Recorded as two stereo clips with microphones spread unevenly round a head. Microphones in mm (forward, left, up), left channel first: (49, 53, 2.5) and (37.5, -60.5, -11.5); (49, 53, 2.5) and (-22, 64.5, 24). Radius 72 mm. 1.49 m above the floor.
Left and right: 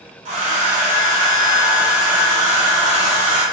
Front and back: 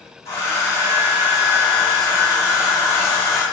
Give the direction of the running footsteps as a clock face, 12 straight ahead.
I don't hear running footsteps.